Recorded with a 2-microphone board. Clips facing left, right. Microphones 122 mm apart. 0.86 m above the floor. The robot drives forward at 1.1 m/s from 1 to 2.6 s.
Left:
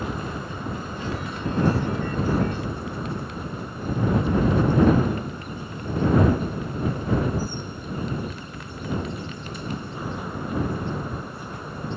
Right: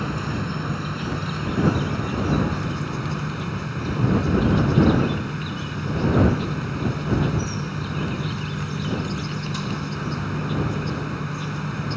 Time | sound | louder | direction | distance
0.0 | an insect | right 3 dB | 70° right (ahead or behind) | ?